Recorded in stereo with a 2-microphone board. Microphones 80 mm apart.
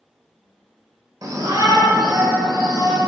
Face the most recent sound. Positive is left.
turn(degrees=-50)  # may be behind; listen again after turning